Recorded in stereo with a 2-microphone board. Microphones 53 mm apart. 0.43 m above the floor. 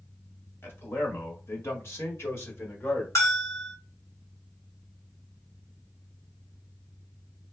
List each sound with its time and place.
0.6 s a man speaking: 45° left (ahead or behind), 1.6 m; by 3.0 s 50° left (ahead or behind), 1.5 m
3.1 s a bell: 60° left (ahead or behind), 2 m